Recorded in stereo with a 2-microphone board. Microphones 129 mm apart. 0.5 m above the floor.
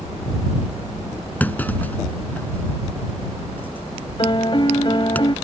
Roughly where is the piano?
Left.